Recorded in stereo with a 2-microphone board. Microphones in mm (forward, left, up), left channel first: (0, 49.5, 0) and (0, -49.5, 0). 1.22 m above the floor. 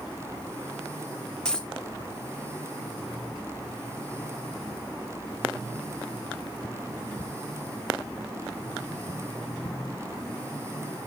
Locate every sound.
1.4 s a dropped coin: 5° left (ahead or behind), 0.7 m